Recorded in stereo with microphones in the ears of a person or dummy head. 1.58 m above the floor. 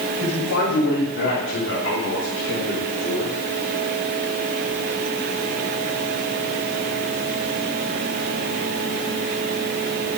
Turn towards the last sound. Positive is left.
turn(degrees=70)  # may be behind; listen again after turning